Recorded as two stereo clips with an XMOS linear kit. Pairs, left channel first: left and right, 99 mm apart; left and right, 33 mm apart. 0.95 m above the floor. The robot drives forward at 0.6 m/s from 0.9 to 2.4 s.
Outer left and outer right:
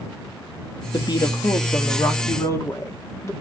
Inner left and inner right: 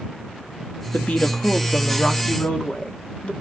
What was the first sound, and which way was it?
A woman speaking, 55° left (ahead or behind).